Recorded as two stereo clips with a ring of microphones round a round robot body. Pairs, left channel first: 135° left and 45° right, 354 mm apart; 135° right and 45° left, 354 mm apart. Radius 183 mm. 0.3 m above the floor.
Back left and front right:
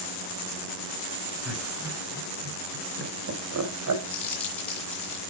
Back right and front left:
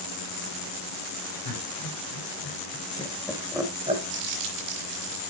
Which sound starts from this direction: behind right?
Laughter, at 1.4 s.